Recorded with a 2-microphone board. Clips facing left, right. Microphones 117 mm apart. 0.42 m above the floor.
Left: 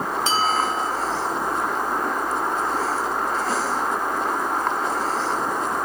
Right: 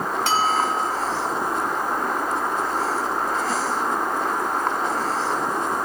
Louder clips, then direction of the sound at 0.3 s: Right 1 dB; 65° right (ahead or behind).